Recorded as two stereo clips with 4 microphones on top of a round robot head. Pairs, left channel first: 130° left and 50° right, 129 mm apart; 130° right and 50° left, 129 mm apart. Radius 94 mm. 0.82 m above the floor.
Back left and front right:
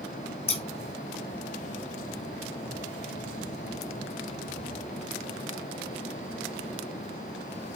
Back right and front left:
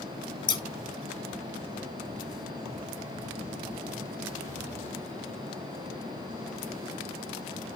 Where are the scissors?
175° left, 1.7 m.